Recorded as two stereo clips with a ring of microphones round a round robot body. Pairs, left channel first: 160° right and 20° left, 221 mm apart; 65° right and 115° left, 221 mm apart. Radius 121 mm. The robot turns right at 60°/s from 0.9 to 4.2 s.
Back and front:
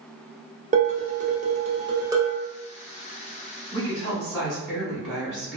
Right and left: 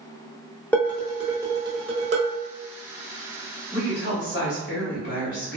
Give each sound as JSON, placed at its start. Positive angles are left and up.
{"t": 0.7, "sound": "dishes clattering", "azimuth_deg": 10, "distance_m": 0.7}
{"t": 3.7, "sound": "a woman speaking", "azimuth_deg": -110, "distance_m": 1.4}